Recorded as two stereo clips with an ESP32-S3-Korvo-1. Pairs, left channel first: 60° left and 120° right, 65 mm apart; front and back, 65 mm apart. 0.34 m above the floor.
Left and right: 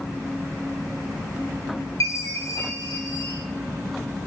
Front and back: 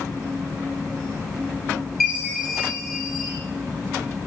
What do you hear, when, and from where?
2.0 s a chime: 85° left, 5 m